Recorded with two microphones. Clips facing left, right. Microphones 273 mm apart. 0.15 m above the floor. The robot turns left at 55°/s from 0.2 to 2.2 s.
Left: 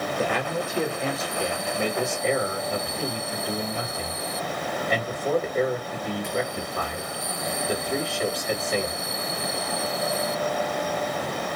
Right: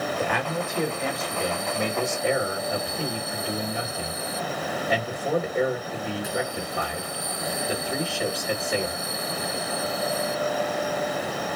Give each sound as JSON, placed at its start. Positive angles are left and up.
{"t": 0.2, "sound": "a man speaking", "azimuth_deg": 100, "distance_m": 2.0}